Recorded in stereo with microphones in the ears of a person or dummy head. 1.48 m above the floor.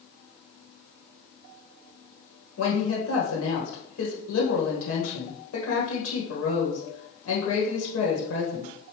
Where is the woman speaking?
85° left, 1.4 m.